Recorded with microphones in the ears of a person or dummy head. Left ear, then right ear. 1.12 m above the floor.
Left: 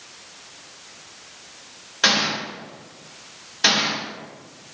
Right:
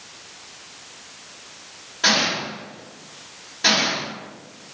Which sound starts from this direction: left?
A gunshot, at 2.0 s.